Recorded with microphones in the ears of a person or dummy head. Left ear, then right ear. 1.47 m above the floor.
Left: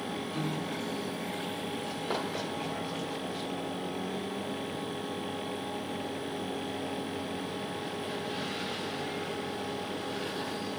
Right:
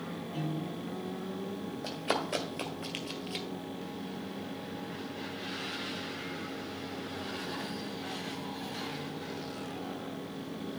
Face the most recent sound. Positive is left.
turn(degrees=-40)  # may be behind; listen again after turning